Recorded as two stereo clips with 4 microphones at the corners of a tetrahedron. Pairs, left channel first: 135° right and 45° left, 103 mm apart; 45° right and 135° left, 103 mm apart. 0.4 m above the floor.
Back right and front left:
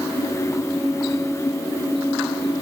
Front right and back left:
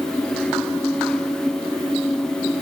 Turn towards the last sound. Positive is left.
No sound to turn to.